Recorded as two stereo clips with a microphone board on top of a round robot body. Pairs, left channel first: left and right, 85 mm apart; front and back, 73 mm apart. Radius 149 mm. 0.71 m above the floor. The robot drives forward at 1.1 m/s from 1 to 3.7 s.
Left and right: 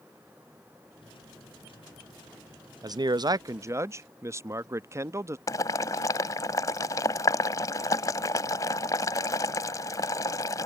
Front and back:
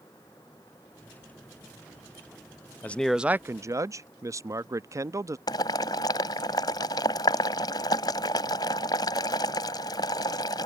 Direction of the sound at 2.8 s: 60° right.